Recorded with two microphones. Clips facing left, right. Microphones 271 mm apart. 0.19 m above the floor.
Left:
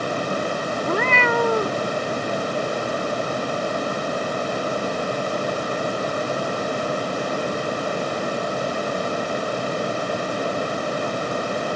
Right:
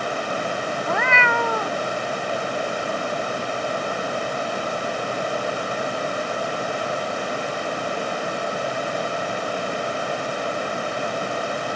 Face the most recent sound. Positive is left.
turn(degrees=40)  # may be behind; listen again after turning